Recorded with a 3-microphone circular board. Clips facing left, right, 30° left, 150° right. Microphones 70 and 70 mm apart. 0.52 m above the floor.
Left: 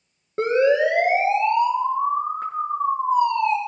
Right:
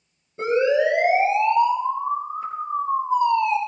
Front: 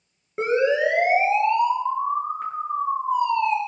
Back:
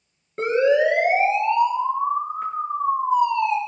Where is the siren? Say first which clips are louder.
Left 1 dB, back 2 dB; 110° left, 6.5 m; by 3.6 s 125° left, 5.5 m.